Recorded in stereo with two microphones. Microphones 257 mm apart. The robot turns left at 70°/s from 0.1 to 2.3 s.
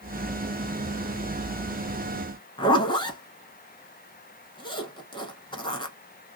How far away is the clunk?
No clunk in this recording.